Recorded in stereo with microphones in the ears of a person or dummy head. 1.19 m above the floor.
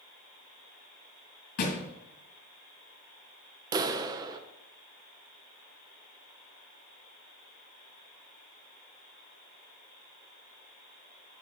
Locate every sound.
1.6 s a thud: 50° left (ahead or behind), 2.5 m
3.7 s a clap: 20° right (ahead or behind), 0.6 m